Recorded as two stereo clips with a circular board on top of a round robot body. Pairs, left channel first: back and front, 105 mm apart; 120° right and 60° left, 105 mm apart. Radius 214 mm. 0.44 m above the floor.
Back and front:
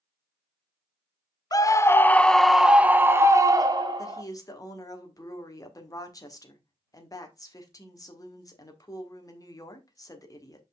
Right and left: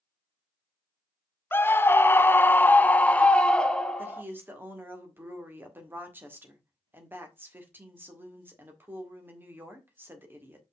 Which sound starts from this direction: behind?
A scream, at 1.5 s.